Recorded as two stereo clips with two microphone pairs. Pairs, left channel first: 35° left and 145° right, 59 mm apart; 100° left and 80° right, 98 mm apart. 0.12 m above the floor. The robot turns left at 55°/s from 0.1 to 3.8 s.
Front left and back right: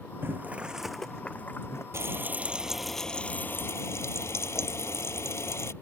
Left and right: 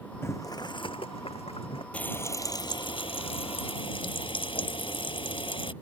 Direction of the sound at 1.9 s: 175° left.